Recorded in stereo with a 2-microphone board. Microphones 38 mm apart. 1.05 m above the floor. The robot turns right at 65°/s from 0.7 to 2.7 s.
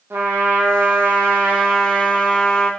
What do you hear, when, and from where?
0.1 s a trumpet: 95° right, 0.6 m; by 2.7 s 35° left, 0.6 m